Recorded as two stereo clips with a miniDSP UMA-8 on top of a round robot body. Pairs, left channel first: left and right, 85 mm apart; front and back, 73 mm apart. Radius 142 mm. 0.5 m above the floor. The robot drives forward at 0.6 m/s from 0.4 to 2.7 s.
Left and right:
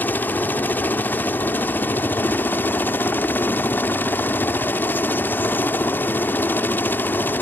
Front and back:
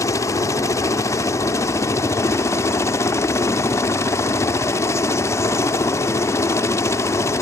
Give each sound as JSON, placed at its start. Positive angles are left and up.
{"t": 0.0, "sound": "a helicopter", "azimuth_deg": 25}